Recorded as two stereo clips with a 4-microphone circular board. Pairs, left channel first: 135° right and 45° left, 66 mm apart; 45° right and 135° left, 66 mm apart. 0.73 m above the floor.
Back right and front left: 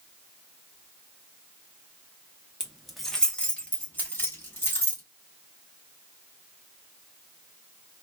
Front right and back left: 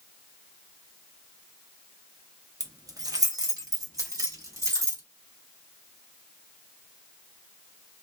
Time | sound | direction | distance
2.6 | keys jangling | 125° left | 0.7 m